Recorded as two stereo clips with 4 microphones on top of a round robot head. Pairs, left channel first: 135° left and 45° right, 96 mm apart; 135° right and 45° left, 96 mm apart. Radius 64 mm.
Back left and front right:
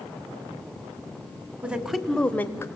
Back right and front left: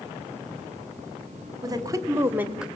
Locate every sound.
1.6 s a woman speaking: 25° left, 1.6 m; by 2.7 s 120° left, 1.3 m